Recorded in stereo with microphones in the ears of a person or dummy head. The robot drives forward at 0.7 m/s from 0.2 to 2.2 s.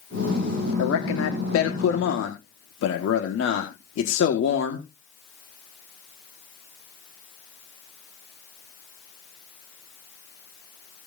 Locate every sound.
0.8 s a man speaking: 75° left (ahead or behind), 1.6 m; by 4.8 s 70° left (ahead or behind), 1.7 m